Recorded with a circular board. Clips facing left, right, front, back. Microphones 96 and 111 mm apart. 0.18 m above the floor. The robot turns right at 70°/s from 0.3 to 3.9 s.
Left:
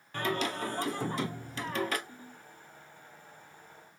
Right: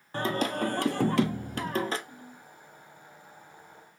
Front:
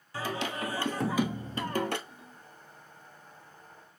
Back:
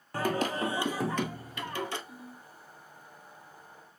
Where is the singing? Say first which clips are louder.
Right 4 dB, back 4 dB; 145° right, 0.8 m; by 2.0 s 25° right, 0.8 m.